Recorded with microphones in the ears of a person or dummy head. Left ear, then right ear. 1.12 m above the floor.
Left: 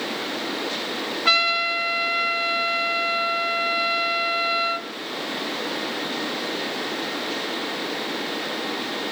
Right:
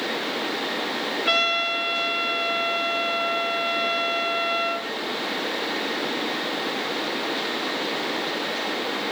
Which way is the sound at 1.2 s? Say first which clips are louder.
Left 3 dB; 40° left (ahead or behind).